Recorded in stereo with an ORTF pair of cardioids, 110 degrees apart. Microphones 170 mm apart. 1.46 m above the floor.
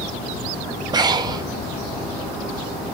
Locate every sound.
0.9 s breathing: 25° right, 1.5 m